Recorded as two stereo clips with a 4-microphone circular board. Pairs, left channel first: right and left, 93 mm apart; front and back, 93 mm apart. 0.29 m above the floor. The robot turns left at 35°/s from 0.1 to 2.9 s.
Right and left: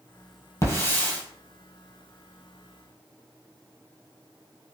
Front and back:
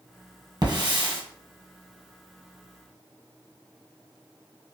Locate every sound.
0.6 s a hiss: 145° right, 1.2 m; by 1.2 s 165° right, 1.2 m